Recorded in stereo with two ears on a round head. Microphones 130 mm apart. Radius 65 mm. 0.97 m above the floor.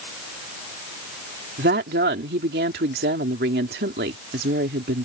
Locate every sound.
1.6 s a woman speaking: 75° right (ahead or behind)